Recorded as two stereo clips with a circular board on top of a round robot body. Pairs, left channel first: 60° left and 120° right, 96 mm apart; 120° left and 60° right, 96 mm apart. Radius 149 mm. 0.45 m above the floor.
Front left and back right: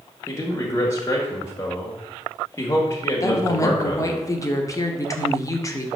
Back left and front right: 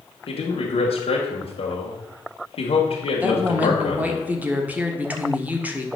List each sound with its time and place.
0.3 s a man speaking: 120° left, 1.8 m
3.2 s a woman speaking: 10° left, 1.5 m